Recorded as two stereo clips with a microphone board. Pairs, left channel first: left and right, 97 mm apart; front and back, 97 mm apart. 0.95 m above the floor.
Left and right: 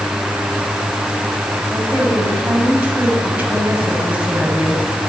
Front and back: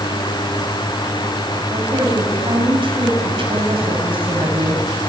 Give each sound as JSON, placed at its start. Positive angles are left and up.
{"t": 1.7, "sound": "a woman speaking", "azimuth_deg": -160, "distance_m": 6.5}